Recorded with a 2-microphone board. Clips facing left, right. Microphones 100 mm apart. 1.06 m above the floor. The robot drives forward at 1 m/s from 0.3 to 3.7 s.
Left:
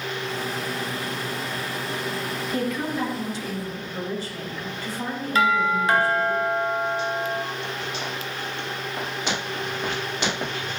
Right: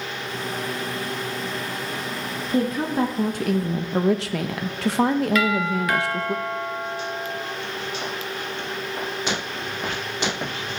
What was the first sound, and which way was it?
A woman speaking, 25° right (ahead or behind).